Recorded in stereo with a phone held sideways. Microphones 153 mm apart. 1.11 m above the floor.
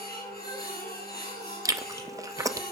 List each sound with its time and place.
0.0 s a machine running: 80° left, 5 m
1.6 s chewing: 20° right (ahead or behind), 0.7 m